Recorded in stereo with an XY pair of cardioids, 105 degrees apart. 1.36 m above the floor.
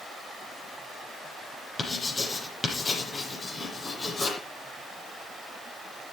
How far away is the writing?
About 8.5 m.